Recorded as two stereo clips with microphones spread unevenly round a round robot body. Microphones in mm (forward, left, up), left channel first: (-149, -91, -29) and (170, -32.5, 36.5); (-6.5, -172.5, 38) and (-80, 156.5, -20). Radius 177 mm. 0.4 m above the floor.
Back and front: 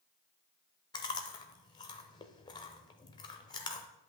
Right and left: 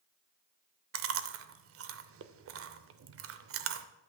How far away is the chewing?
About 0.6 m.